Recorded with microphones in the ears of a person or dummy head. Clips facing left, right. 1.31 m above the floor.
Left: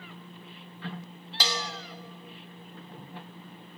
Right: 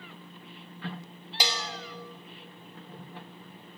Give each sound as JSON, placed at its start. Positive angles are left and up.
{"t": 1.4, "sound": "a bell", "side_deg": -10, "distance_m": 1.4}